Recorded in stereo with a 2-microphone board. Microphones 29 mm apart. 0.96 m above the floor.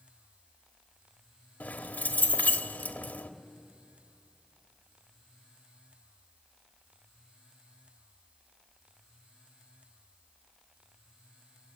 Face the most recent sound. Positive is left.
turn(degrees=85)